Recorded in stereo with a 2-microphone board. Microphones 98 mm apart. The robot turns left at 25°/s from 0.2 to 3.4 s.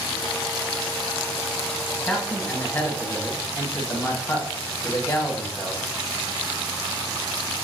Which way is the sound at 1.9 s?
175° left.